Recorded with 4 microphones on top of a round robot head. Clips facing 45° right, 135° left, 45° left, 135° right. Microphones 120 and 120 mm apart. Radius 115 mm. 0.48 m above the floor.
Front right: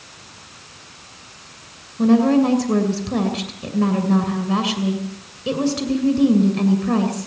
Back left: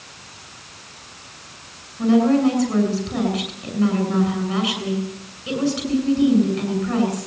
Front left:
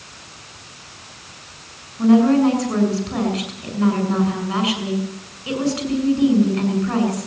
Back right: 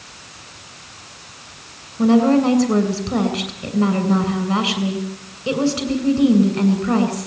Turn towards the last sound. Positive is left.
turn(degrees=-75)